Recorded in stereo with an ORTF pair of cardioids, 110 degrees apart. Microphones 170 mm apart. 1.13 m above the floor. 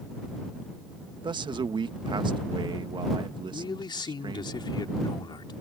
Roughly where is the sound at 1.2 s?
Ahead right.